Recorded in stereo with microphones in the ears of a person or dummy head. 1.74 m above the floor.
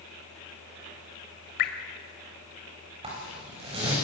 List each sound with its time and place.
1.6 s dripping: 55° left (ahead or behind), 2 m
3.0 s a zipper: 30° right (ahead or behind), 9.5 m